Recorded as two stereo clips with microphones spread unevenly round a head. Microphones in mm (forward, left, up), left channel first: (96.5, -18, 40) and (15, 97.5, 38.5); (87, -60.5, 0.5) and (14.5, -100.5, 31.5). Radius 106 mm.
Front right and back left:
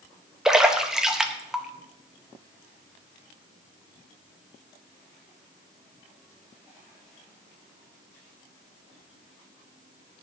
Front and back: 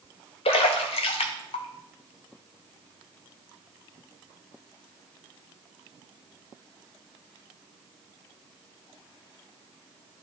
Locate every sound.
0.5 s a splash: 40° left, 0.7 m